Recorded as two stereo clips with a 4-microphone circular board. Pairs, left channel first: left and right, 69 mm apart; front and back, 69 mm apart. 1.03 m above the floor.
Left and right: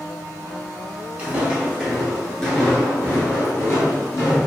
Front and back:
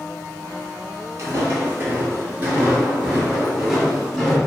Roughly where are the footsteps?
Behind right.